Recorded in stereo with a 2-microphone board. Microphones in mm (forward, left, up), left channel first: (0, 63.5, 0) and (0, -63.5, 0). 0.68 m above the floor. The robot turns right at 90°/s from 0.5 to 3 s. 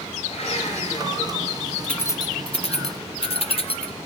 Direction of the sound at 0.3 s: 70° left.